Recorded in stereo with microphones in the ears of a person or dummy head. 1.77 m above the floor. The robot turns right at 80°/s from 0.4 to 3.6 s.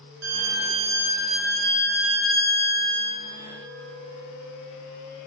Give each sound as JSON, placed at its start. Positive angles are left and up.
{"t": 0.2, "sound": "a violin", "azimuth_deg": -100, "distance_m": 1.2}